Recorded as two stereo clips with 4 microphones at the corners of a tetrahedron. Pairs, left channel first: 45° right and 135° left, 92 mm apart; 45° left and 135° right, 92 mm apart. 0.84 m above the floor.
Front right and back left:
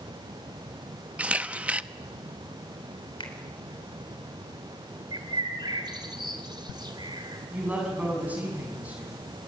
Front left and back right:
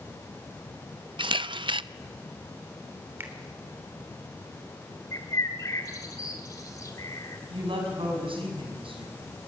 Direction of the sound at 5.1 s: 95° left.